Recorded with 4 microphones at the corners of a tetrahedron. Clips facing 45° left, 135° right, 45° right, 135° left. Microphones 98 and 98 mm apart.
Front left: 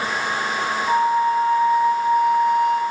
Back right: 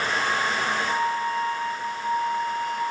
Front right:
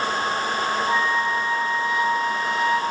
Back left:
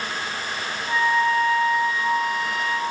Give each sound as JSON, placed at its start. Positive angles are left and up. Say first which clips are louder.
{"t": 0.9, "sound": "a flute", "louder": "front left 7 dB, back left 7 dB", "azimuth_deg": 20, "distance_m": 4.5}